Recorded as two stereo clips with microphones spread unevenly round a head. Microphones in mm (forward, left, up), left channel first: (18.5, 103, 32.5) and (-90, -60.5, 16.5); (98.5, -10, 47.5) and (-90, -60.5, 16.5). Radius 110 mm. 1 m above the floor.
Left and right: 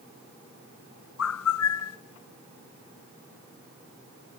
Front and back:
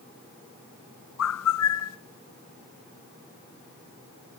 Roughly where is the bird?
Ahead left.